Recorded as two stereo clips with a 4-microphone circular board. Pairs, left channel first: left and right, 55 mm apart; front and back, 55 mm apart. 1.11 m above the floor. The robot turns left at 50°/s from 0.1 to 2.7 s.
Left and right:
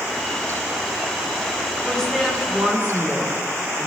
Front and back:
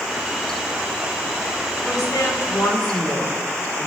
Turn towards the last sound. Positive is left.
turn(degrees=-20)